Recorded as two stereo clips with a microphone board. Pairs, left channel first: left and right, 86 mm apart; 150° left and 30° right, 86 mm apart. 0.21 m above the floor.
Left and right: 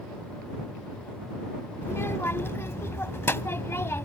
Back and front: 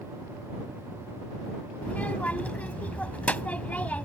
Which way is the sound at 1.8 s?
95° left.